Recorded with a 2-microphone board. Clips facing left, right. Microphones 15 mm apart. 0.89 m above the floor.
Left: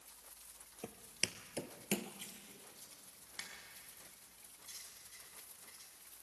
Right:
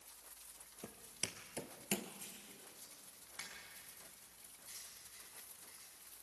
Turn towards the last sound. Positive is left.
turn(degrees=65)  # may be behind; listen again after turning